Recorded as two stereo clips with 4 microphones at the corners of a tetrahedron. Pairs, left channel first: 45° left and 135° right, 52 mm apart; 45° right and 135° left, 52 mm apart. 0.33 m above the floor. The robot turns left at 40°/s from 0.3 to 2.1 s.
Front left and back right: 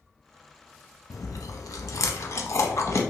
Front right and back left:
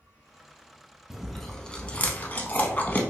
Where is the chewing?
50° left, 0.5 m; by 3.0 s 10° left, 0.5 m.